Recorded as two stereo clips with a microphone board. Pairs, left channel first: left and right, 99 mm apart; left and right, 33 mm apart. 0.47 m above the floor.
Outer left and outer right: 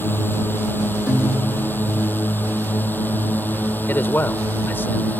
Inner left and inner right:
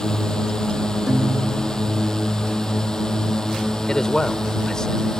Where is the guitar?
10° right (ahead or behind).